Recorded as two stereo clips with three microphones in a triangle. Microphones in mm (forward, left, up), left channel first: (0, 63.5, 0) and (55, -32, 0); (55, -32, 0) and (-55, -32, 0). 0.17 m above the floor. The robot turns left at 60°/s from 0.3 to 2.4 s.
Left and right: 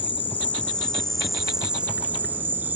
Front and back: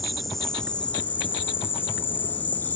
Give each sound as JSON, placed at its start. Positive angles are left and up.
{"t": 0.0, "sound": "an insect", "azimuth_deg": 85}